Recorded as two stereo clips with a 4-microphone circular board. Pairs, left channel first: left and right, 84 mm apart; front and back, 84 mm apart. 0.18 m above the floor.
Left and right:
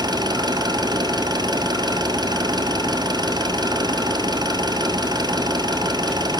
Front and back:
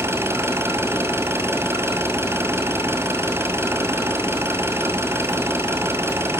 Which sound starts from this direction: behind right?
An engine running, at 0.0 s.